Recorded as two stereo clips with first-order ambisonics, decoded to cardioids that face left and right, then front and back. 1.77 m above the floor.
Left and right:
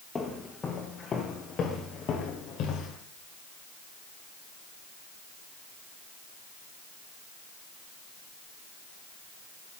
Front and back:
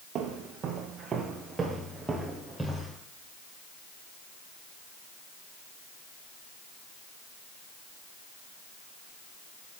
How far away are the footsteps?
About 2 m.